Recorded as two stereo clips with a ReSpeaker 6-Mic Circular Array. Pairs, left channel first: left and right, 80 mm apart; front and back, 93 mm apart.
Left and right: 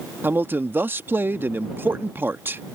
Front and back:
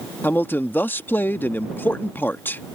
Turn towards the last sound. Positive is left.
turn(degrees=-50)